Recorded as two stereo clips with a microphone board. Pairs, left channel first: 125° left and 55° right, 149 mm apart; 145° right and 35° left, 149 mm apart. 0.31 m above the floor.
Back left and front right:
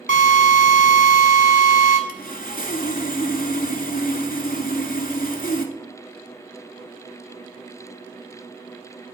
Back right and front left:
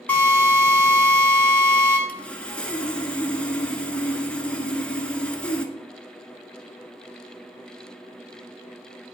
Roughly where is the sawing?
Behind left.